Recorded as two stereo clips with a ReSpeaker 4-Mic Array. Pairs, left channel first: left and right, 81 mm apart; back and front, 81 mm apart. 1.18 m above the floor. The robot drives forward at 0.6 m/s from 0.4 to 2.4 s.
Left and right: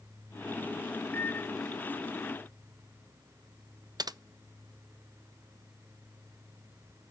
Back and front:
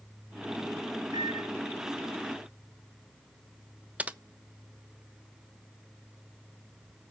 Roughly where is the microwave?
Ahead left.